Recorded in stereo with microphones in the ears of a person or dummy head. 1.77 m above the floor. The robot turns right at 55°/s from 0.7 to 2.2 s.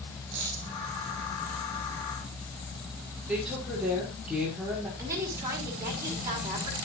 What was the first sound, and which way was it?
A dropped coin, 60° right (ahead or behind).